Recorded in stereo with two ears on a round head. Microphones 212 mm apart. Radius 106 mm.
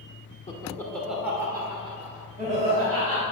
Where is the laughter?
25° left (ahead or behind), 1.1 m; by 3.2 s 40° right (ahead or behind), 2.5 m.